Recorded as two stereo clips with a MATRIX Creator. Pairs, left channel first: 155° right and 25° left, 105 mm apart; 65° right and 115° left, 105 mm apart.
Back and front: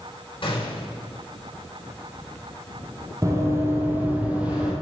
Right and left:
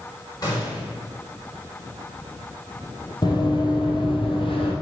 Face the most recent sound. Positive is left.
turn(degrees=-60)